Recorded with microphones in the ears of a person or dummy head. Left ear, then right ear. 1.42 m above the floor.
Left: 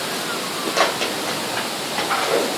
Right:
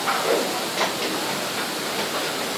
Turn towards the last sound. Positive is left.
turn(degrees=75)  # may be behind; listen again after turning